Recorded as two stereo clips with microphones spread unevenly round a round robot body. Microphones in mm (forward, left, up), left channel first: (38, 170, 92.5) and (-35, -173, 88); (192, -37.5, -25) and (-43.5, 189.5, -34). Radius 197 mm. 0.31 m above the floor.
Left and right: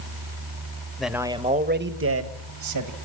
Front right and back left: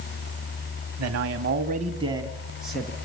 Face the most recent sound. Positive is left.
turn(degrees=-130)